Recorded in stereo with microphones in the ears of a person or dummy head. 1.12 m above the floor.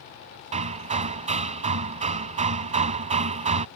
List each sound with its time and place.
0.5 s hammering: 35° right (ahead or behind)